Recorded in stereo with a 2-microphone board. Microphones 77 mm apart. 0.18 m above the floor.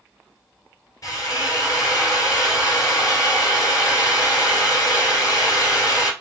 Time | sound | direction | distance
1.0 | a drill | 50° left (ahead or behind) | 2 m